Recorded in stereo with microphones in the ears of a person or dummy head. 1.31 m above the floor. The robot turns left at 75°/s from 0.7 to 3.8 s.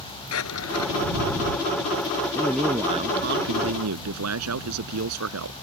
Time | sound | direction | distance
0.3 | a drawer | 80° left | ?
2.4 | a man speaking | 15° left | ?